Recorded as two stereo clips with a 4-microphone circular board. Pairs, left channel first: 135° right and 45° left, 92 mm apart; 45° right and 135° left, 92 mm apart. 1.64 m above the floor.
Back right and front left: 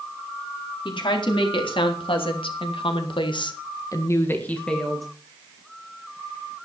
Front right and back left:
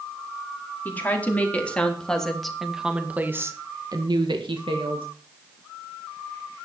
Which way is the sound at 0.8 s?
115° right.